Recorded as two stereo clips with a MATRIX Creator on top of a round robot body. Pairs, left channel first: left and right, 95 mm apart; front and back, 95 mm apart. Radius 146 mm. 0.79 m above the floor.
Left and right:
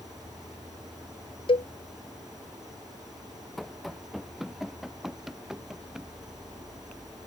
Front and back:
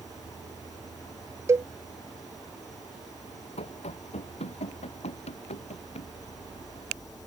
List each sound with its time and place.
0.0 s an insect: 45° right
1.5 s a cowbell: 120° left
3.6 s running footsteps: straight ahead; by 6.1 s 5° right